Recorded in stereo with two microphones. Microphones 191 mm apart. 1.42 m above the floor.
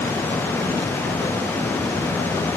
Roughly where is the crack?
I don't hear a crack.